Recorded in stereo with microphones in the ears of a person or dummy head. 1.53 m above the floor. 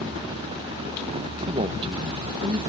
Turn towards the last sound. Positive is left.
turn(degrees=-30)  # may be behind; listen again after turning